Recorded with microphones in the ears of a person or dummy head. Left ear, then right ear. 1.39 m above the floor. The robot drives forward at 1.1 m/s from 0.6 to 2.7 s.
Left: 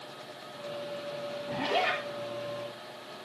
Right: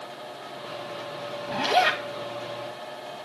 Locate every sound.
1.5 s a zipper: 55° right (ahead or behind), 3 m; by 2.0 s 65° right (ahead or behind), 2.5 m